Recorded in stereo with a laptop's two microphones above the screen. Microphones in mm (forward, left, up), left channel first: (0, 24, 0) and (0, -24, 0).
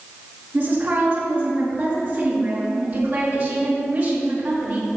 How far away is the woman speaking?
About 3 m.